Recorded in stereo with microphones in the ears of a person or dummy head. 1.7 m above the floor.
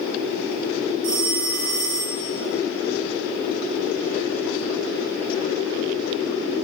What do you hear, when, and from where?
1.0 s a phone ringing: 35° right (ahead or behind), 0.7 m